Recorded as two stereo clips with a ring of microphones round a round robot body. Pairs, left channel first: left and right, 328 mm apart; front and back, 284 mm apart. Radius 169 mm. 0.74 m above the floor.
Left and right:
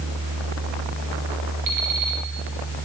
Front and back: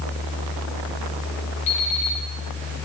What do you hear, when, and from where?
1.7 s an alarm clock: 55° right, 3.5 m